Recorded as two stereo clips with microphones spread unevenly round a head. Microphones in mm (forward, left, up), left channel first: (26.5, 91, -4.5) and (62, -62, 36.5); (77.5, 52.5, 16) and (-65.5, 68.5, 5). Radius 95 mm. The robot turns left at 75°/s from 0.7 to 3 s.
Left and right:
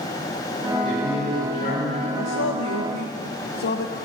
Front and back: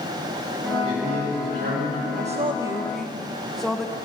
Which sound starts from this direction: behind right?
A man speaking, at 0.8 s.